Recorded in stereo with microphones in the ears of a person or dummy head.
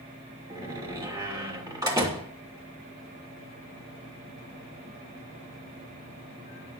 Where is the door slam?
15° right (ahead or behind), 2.5 m.